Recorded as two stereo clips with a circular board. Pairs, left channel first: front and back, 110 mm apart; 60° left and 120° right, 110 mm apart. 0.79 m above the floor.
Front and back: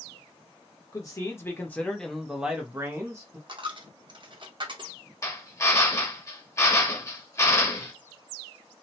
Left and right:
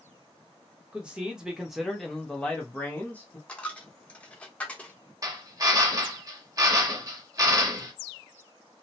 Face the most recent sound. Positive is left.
turn(degrees=-65)